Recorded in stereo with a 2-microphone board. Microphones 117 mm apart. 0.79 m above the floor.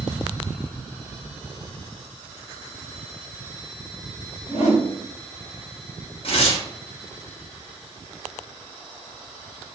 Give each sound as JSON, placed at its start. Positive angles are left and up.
{"t": 4.5, "sound": "a whoosh", "side_deg": 75, "distance_m": 1.3}
{"t": 6.2, "sound": "tearing paper", "side_deg": 55, "distance_m": 1.1}